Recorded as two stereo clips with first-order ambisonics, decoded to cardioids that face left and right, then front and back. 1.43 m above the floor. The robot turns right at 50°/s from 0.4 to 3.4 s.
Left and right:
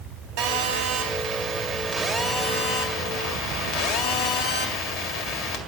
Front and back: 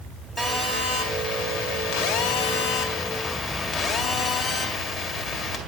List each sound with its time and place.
0.4 s a phone buzzing: 80° right, 2.0 m; by 5.6 s 70° left, 2.0 m